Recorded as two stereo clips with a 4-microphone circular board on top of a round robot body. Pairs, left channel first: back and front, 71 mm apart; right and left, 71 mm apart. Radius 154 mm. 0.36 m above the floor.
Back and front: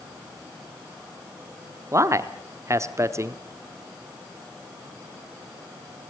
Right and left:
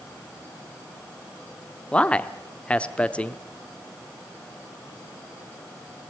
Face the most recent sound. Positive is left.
turn(degrees=-25)